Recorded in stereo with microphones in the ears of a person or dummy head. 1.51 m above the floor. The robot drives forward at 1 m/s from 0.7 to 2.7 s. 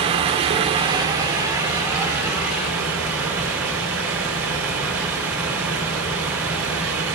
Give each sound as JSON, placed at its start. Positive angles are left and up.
{"t": 0.0, "sound": "running water", "side_deg": -30, "distance_m": 0.9}